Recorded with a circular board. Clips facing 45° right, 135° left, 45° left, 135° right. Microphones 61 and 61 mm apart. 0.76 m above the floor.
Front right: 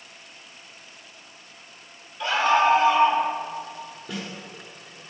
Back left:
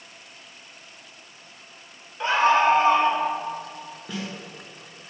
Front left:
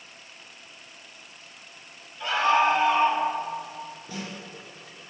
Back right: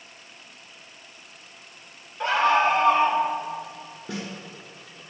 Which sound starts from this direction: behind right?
A snare drum, at 4.1 s.